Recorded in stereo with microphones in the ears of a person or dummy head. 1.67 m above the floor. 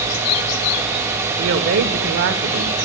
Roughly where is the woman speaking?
Right.